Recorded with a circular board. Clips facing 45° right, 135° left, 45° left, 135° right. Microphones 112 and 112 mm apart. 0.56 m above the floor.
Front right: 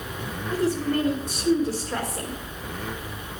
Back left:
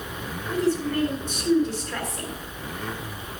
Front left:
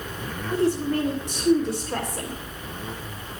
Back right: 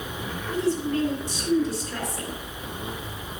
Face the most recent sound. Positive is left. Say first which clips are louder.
# even, front left 2 dB
turn(degrees=30)